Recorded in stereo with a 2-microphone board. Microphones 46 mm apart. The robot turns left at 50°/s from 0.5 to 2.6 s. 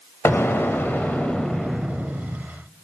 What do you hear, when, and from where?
0.2 s an explosion: 70° left, 0.7 m; by 2.4 s 30° right, 0.7 m